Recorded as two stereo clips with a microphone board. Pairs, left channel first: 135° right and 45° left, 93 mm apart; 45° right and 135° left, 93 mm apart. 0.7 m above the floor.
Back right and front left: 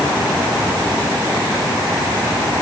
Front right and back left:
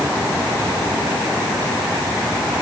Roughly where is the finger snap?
No finger snap in this recording.